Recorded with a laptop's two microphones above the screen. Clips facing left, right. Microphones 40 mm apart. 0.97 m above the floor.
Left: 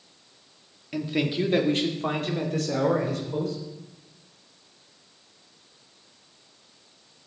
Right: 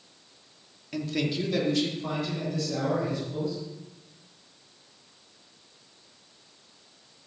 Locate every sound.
0.9 s a man speaking: 10° left (ahead or behind), 1.7 m; by 3.6 s 70° left (ahead or behind), 3.5 m